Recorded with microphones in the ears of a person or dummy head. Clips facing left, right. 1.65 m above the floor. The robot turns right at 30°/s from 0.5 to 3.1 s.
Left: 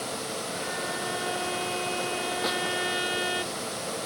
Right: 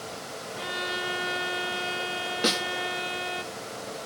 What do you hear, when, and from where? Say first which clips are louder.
0.6 s a violin: left 1 dB; 65° right, 0.8 m; by 3.4 s 15° left, 0.8 m
2.4 s a snare drum: right 6 dB; 45° right (ahead or behind), 1.1 m; by 2.6 s 40° right (ahead or behind), 1.1 m